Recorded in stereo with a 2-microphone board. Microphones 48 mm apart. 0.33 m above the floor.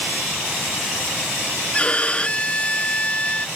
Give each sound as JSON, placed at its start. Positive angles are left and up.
{"t": 1.7, "sound": "a violin", "side_deg": 25}